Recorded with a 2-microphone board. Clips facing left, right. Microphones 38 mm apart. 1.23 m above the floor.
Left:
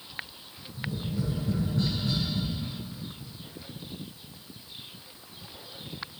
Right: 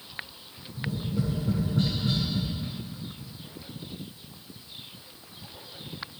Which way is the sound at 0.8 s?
35° right (ahead or behind).